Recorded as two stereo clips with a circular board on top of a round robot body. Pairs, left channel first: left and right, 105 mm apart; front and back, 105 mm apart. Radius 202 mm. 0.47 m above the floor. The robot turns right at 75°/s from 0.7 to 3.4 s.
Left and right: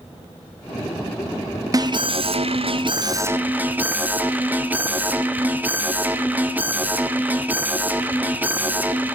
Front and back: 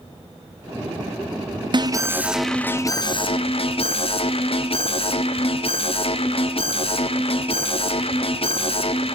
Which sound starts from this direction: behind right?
An alarm, at 1.7 s.